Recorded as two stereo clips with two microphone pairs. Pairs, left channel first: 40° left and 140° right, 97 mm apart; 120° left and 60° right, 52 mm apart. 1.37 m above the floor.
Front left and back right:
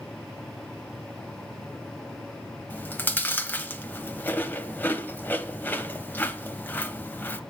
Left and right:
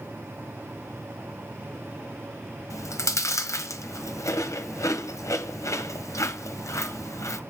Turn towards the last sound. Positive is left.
turn(degrees=115)